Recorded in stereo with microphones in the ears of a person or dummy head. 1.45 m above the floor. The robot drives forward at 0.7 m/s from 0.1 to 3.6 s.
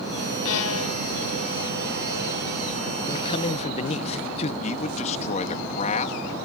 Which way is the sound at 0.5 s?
75° left (ahead or behind).